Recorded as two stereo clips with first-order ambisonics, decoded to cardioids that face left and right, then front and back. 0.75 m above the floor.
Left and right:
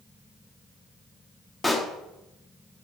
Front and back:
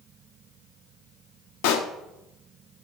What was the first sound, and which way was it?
A pop, 5° left.